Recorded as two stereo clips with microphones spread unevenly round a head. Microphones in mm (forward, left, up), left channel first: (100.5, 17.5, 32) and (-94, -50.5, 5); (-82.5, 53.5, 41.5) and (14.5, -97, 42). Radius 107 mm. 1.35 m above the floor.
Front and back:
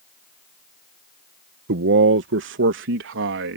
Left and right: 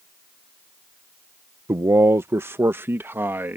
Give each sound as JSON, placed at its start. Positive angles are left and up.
{"t": 1.7, "sound": "a man speaking", "azimuth_deg": -130}